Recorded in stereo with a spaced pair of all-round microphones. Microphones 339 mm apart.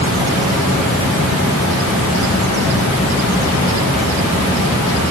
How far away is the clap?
I don't hear a clap.